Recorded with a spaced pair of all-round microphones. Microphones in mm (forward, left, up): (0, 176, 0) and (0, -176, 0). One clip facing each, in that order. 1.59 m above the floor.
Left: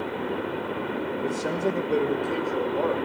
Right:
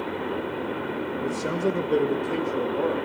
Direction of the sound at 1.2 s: Centre (ahead or behind).